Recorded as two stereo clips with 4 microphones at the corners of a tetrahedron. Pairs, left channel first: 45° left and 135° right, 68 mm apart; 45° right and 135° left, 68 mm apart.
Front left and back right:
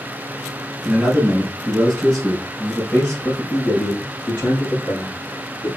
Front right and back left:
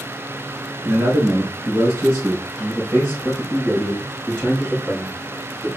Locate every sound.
0.8 s a man speaking: 145° left, 1.3 m; by 5.7 s 65° left, 3 m